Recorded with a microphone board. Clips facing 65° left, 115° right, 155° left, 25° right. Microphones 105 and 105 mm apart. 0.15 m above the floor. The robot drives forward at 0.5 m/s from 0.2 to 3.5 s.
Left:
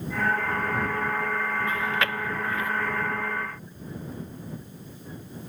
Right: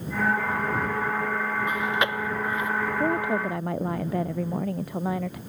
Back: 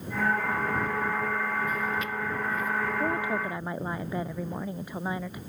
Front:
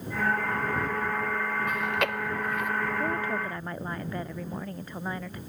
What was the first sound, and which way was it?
Chewing, 40° right.